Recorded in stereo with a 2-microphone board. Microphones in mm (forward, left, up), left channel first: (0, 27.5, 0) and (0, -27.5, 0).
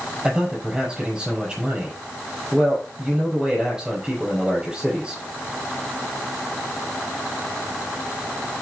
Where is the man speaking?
15° right (ahead or behind), 5.5 m.